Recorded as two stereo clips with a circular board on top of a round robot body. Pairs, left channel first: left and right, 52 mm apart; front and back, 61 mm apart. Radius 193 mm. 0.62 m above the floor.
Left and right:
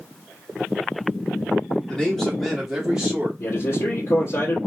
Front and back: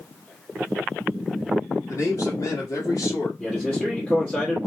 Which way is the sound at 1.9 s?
20° left.